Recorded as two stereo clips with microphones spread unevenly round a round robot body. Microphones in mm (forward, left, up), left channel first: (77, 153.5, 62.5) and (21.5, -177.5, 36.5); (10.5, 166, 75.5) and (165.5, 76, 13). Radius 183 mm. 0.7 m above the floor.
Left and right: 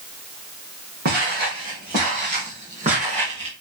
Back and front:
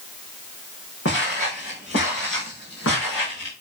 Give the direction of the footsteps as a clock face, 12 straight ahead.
5 o'clock.